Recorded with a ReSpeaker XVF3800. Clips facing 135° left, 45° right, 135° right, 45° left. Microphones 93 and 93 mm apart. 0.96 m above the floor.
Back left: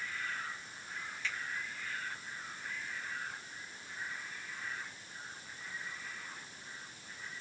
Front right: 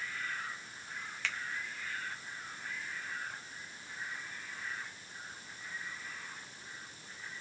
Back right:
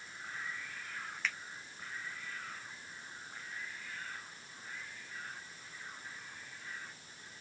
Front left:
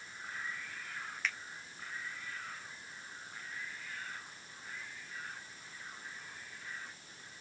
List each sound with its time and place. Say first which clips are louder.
1.2 s a finger snap: front right 1 dB, even; 45° right, 0.8 m